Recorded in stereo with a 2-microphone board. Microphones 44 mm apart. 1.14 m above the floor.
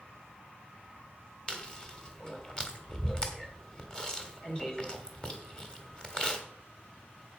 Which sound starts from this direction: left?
Chewing, at 1.5 s.